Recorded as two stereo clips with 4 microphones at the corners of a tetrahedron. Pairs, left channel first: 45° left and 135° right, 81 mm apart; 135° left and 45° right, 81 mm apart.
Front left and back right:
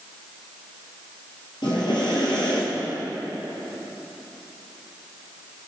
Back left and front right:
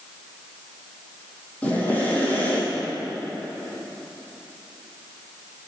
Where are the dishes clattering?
No dishes clattering in this recording.